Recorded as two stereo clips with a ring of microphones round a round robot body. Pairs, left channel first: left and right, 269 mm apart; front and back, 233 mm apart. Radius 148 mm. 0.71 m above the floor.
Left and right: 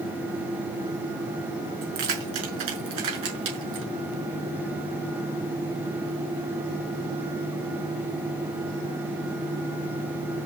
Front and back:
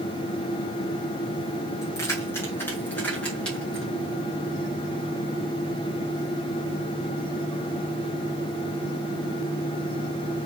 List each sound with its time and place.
1.8 s keys jangling: 80° right, 5.5 m; by 3.9 s 90° right, 6.5 m